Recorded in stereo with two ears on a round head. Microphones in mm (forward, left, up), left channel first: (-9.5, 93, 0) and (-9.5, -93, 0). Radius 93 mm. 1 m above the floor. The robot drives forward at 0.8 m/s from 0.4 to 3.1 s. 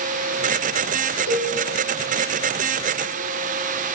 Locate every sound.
1.3 s a cowbell: 35° left (ahead or behind), 4 m